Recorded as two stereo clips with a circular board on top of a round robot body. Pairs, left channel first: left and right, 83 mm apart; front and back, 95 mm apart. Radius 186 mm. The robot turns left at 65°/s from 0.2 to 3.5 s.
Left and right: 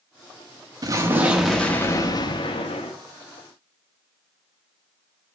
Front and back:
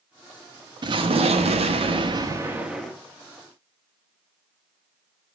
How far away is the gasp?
I don't hear a gasp.